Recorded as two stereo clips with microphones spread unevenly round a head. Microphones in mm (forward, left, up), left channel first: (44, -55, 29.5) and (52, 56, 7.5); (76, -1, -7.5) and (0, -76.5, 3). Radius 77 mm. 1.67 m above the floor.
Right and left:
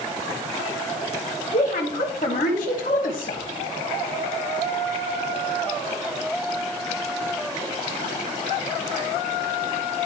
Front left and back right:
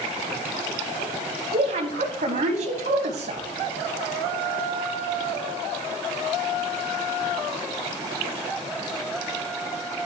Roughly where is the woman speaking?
Behind right.